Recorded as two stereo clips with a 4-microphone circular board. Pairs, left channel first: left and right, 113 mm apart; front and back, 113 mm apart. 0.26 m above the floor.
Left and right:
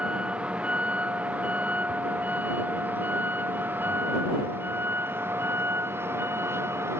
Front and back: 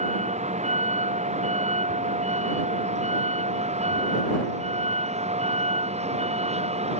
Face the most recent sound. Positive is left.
turn(degrees=-160)